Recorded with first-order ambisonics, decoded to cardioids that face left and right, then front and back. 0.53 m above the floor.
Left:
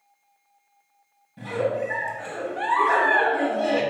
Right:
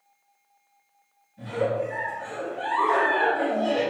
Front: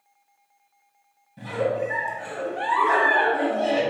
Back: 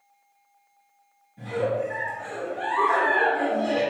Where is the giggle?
60° left, 0.8 m.